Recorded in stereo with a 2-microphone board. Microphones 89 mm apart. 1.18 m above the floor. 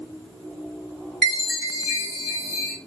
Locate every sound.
1.2 s a chime: 5° left (ahead or behind), 1.2 m